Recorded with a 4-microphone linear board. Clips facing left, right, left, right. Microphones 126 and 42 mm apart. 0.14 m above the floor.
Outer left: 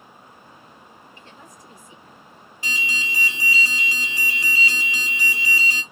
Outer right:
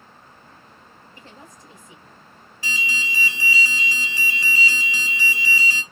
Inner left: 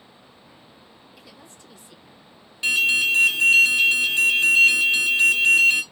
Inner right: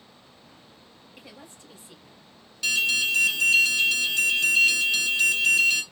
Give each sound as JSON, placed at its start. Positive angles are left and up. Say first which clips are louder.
{"t": 1.2, "sound": "a woman speaking", "louder": "outer right 3 dB, inner right 3 dB", "side_deg": -35, "distance_m": 2.0}
{"t": 2.6, "sound": "an alarm", "louder": "outer right 1 dB, inner left 4 dB", "side_deg": 20, "distance_m": 1.4}